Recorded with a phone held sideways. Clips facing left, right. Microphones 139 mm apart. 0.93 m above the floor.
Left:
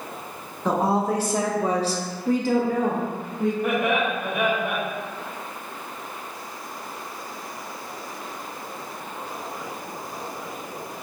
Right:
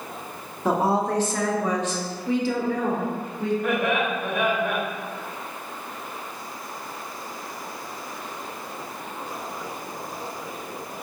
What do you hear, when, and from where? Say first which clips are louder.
0.7 s a woman speaking: even; 5° right (ahead or behind), 0.7 m; by 3.5 s 45° left (ahead or behind), 1.2 m
3.6 s laughter: left 1 dB; 20° left (ahead or behind), 1.5 m